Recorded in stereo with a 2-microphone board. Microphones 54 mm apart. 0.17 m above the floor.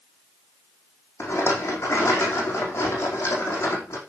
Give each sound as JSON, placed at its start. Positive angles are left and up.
{"t": 1.2, "sound": "a rattle", "side_deg": 55, "distance_m": 4.0}